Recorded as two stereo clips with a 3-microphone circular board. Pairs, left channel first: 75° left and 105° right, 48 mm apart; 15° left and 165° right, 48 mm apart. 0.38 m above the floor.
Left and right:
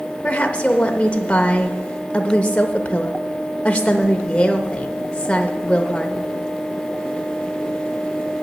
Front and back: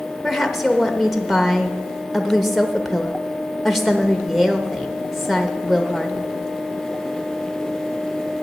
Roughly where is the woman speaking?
Left.